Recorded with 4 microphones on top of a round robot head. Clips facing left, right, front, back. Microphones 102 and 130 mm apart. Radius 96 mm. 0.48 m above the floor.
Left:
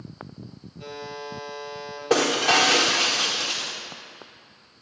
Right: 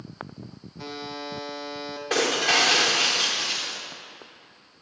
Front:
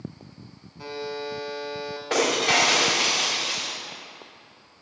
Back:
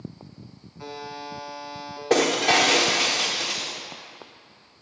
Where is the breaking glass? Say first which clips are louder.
Left 4 dB, back 3 dB; 135° left, 2.5 m.